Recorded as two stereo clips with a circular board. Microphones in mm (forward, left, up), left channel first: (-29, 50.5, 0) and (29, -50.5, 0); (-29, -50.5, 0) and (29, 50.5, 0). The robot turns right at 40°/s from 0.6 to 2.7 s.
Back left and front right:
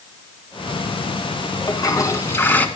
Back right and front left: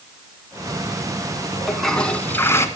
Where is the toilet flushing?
150° left, 1.4 m; by 2.7 s 170° right, 1.4 m.